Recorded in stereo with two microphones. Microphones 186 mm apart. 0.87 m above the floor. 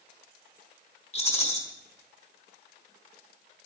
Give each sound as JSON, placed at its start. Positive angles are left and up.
{"t": 1.1, "sound": "a rattle", "side_deg": 35, "distance_m": 3.0}